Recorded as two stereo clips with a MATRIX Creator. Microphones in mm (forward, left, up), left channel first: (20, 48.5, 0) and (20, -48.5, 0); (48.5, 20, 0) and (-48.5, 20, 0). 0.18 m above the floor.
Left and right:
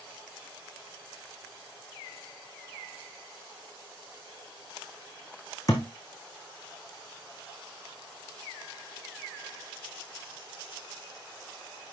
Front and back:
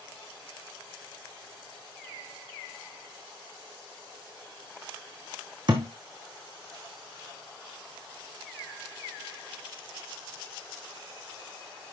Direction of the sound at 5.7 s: 145° left.